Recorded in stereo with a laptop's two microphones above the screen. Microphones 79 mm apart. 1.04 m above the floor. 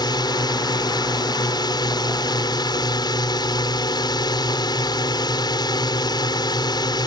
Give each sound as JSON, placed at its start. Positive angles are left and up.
{"t": 0.0, "sound": "a drone", "side_deg": 65}